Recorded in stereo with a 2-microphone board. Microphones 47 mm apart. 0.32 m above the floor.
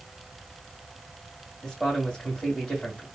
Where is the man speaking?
5° left (ahead or behind), 1.7 m.